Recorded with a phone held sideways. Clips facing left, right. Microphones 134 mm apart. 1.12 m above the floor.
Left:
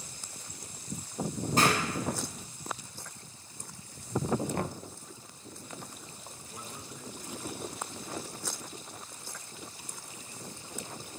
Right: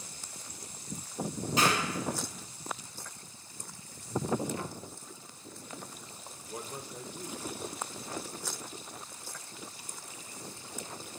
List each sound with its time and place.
1.6 s a clap: 50° left (ahead or behind), 8 m
4.5 s knocking: 65° left (ahead or behind), 0.9 m
6.5 s a man speaking: 50° right (ahead or behind), 3 m